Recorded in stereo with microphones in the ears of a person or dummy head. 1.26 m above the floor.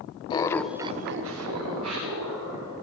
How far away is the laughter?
About 0.9 m.